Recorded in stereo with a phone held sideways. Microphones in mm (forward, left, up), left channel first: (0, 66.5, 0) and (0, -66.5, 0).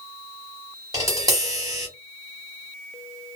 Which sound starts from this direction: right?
Tapping, at 0.9 s.